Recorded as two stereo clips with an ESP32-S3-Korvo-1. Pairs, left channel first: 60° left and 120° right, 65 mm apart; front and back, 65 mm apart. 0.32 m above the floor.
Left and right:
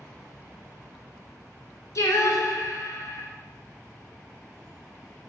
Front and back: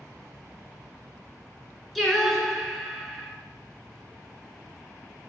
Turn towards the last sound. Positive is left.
turn(degrees=90)